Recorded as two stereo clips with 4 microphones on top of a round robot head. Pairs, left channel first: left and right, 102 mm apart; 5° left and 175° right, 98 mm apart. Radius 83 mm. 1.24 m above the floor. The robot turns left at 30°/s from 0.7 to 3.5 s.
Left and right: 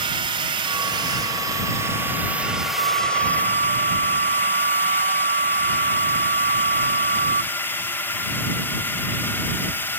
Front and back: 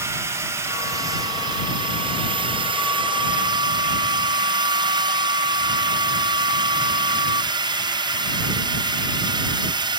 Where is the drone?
115° right; by 10.0 s 160° left.